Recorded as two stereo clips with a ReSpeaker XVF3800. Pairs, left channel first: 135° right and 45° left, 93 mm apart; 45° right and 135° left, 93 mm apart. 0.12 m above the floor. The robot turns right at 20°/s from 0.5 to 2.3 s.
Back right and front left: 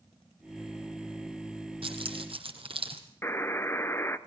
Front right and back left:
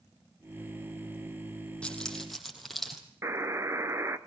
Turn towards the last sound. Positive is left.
turn(degrees=175)